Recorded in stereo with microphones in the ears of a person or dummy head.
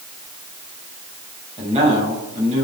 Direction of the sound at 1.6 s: 30° right (ahead or behind).